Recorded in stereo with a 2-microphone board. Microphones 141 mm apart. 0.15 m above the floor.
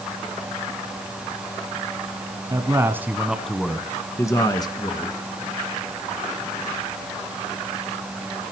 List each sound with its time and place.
2.5 s a man speaking: 25° right (ahead or behind), 1.4 m; by 5.2 s 35° left (ahead or behind), 2 m